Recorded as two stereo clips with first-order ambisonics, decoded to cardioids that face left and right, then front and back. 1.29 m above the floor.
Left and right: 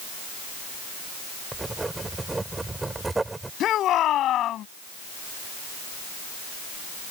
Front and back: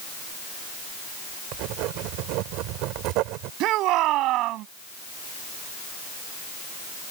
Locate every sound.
1.5 s writing: 170° right
3.6 s a shout: 140° left